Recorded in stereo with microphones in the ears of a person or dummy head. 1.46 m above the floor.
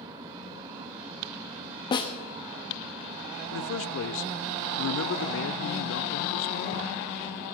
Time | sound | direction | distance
0.0 | a fan | 15° right (ahead or behind) | 1.2 m
1.9 | a snare drum | 25° left (ahead or behind) | 1.1 m
3.5 | a man speaking | 75° left (ahead or behind) | 0.6 m